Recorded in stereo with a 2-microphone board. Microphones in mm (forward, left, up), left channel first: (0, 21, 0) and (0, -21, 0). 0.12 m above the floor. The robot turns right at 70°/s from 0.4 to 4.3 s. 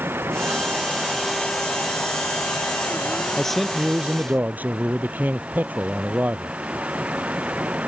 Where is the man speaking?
165° left; by 6.6 s 130° right.